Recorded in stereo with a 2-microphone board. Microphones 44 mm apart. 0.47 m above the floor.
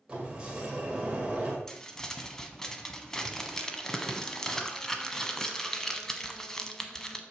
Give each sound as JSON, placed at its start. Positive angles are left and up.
{"t": 0.1, "sound": "a sliding door", "side_deg": -20, "distance_m": 2.0}
{"t": 1.7, "sound": "crumpling", "side_deg": 10, "distance_m": 1.1}